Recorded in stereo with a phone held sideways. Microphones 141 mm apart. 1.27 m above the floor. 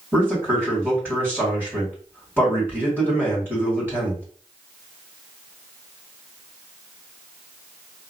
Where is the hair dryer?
I don't hear a hair dryer.